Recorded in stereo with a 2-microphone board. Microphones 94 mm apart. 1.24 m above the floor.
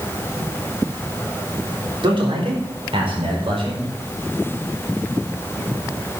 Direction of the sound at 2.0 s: 65° right (ahead or behind).